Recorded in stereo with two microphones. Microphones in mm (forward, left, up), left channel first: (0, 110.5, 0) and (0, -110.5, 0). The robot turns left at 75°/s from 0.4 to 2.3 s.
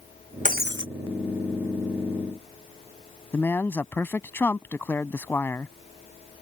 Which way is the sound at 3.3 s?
10° left (ahead or behind).